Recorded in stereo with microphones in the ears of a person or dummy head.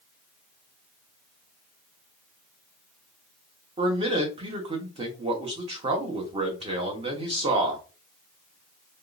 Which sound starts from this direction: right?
A man speaking, at 3.8 s.